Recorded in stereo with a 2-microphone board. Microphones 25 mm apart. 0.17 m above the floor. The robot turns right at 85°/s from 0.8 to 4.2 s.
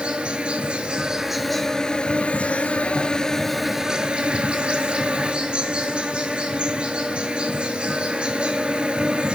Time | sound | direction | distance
0.0 | an insect | 50° right | 0.7 m